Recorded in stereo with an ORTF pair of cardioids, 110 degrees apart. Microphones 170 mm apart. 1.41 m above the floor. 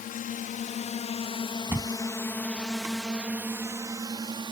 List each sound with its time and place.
0.0 s a drone: 60° left; by 4.5 s 30° right
1.7 s a thud: 10° right